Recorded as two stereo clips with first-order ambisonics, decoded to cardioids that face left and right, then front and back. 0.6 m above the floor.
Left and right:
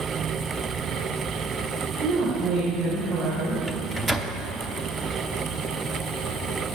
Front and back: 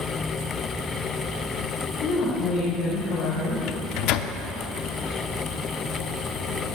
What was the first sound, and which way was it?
A woman speaking, 40° right.